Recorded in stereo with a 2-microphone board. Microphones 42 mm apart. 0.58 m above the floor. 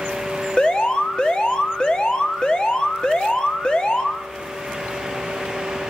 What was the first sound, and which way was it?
An alarm, 20° left (ahead or behind).